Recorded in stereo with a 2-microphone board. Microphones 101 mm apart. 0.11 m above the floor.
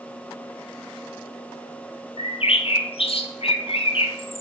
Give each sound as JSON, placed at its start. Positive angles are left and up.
{"t": 2.2, "sound": "a bird", "side_deg": 70, "distance_m": 0.9}